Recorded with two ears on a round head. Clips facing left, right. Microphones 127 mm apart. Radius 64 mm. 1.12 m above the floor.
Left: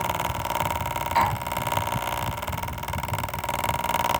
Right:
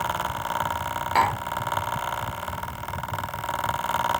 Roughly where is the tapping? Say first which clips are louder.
Right 1 dB; right.